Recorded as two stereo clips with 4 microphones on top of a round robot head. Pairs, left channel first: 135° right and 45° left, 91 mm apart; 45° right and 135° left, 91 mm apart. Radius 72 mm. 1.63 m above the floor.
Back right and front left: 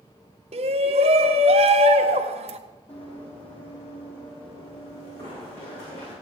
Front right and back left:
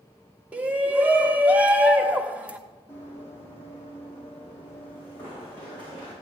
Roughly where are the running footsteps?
Right.